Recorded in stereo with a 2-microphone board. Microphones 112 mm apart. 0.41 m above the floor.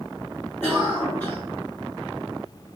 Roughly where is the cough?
Centre.